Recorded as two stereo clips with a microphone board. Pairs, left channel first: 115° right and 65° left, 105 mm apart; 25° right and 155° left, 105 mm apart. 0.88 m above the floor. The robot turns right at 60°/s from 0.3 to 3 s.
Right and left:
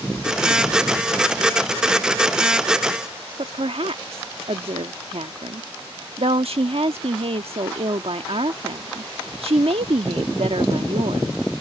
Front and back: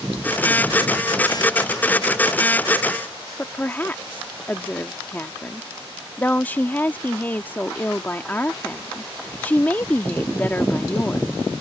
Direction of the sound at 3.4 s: 50° left.